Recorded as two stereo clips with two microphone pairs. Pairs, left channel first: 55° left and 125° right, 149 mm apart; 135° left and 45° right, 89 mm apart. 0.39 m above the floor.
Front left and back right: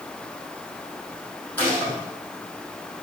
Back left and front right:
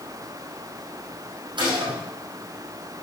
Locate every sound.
1.6 s a gunshot: 25° right, 4 m